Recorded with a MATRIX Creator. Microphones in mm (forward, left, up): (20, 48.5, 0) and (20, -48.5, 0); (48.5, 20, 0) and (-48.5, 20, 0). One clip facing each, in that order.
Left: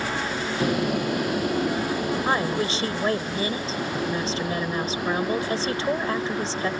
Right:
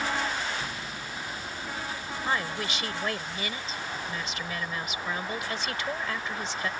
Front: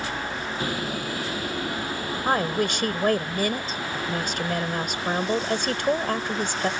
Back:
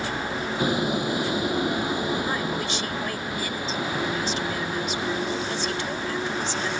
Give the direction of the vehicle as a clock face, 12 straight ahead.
8 o'clock.